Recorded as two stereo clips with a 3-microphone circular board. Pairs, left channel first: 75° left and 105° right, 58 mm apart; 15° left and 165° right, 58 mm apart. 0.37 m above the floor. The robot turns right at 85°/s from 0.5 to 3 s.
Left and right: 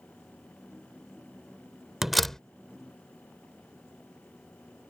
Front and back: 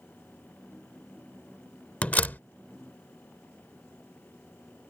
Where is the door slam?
30° right; by 2.4 s 5° left.